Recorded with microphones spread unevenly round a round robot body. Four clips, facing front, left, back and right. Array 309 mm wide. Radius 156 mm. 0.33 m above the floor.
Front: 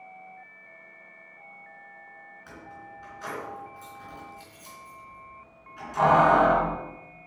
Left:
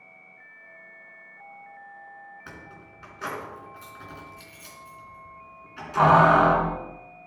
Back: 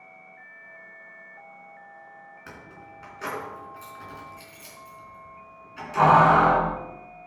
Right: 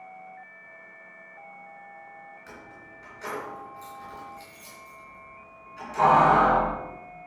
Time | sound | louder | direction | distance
2.5 | keys jangling | left 1 dB, front 3 dB | 125° left | 3.5 m